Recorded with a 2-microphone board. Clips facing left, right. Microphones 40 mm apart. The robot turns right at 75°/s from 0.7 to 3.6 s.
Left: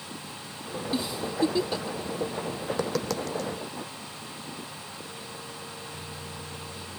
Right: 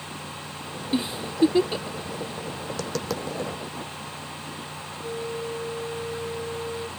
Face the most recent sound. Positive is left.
turn(degrees=-65)  # may be behind; listen again after turning